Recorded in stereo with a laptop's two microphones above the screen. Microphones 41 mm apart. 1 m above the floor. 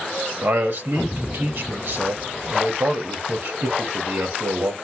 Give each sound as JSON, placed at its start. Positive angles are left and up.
{"t": 0.4, "sound": "a man speaking", "side_deg": -60, "distance_m": 1.1}